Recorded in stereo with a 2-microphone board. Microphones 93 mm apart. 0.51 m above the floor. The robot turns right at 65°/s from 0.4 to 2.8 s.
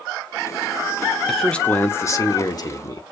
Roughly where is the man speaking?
Ahead.